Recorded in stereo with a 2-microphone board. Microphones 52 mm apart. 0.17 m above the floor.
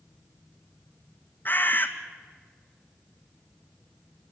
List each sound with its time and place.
1.4 s a bird: 40° left (ahead or behind), 1.7 m